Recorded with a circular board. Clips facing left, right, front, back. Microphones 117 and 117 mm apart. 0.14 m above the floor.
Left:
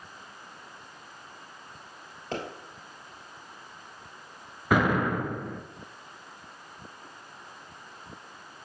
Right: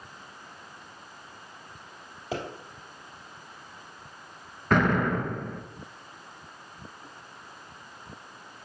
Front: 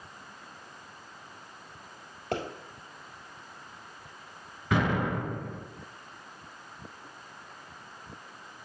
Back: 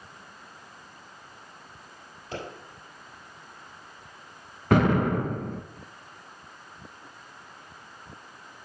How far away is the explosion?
About 0.6 m.